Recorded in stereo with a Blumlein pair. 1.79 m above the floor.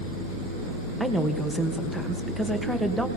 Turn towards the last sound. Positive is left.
turn(degrees=0)